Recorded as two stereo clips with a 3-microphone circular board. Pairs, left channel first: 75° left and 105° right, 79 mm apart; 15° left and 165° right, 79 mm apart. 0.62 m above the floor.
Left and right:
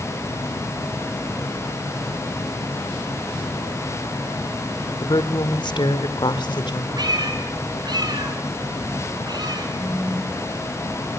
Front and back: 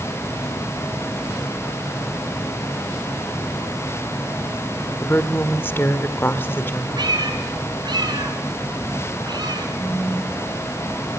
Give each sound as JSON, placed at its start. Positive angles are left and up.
{"t": 5.0, "sound": "a woman speaking", "azimuth_deg": 75, "distance_m": 1.7}
{"t": 7.0, "sound": "a cat meowing", "azimuth_deg": -135, "distance_m": 4.0}
{"t": 9.8, "sound": "a phone buzzing", "azimuth_deg": -20, "distance_m": 3.5}